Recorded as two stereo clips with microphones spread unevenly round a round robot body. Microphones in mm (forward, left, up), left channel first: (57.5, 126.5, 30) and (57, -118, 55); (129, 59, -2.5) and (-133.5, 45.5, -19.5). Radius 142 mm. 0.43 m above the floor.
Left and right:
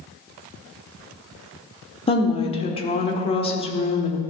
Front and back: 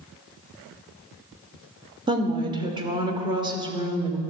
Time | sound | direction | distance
2.1 | a woman speaking | 130° left | 1.1 m